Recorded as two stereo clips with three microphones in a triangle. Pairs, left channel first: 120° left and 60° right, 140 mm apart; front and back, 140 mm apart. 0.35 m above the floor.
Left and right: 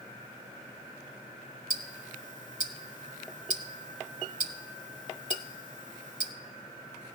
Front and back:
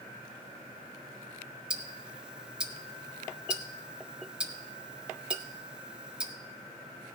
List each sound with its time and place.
1.7 s ticking: 95° right, 0.9 m